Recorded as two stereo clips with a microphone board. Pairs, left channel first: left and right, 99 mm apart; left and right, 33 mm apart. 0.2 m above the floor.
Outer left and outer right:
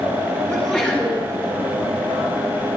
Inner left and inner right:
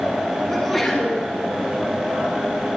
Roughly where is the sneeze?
Centre.